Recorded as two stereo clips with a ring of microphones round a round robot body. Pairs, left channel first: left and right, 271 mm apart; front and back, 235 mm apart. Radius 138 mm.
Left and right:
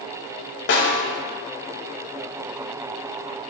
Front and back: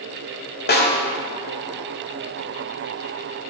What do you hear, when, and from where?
0.7 s a snare drum: 45° left, 1.2 m